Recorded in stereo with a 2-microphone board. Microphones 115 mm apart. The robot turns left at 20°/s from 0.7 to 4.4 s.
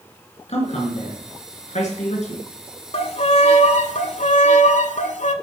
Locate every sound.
0.5 s a man speaking: 110° left, 3.5 m; by 2.4 s 75° left, 3.5 m
2.9 s a violin: 60° left (ahead or behind), 0.7 m; by 5.3 s 80° left, 0.7 m